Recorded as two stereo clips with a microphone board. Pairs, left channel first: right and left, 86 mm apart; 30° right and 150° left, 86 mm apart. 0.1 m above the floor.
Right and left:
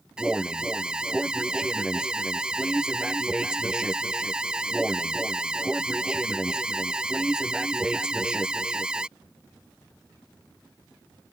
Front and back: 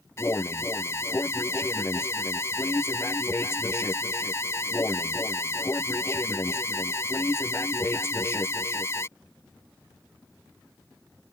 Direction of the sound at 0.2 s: 15° left.